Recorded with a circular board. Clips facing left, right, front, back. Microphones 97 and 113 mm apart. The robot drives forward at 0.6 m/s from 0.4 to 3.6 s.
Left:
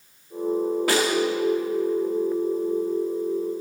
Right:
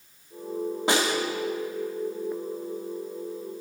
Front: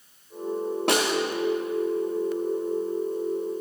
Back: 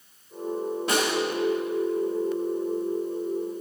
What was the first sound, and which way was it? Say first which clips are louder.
A snare drum: even, front 2 dB; 20° right.